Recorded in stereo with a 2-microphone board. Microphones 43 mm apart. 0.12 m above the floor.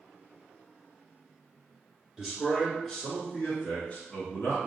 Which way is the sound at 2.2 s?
10° right (ahead or behind).